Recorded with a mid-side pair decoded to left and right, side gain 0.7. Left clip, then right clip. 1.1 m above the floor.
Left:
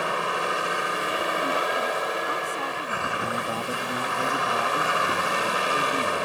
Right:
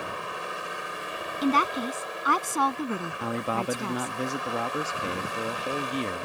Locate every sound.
0.0 s a vehicle: 35° left
1.4 s a woman speaking: 45° right
3.2 s a man speaking: 20° right